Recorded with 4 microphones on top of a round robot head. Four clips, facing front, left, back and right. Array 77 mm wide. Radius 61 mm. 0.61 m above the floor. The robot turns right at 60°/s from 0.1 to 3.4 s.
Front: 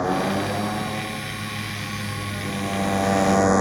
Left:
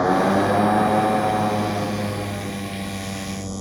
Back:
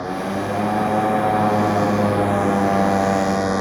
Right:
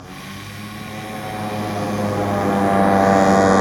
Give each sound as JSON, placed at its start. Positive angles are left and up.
{"t": 0.0, "sound": "a motorcycle", "azimuth_deg": 80}